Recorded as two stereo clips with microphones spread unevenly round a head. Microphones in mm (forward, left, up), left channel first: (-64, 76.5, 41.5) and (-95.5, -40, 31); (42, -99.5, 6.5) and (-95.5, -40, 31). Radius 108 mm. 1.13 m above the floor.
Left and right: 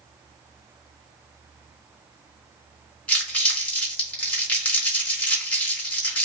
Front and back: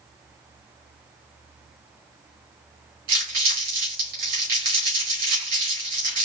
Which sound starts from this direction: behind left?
Crumpling, at 3.1 s.